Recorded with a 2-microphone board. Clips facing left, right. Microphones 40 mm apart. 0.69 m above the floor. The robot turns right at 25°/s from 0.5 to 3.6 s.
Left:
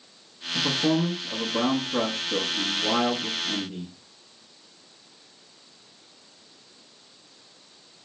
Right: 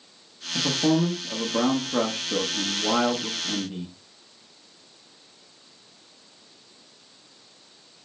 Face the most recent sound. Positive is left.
turn(degrees=-55)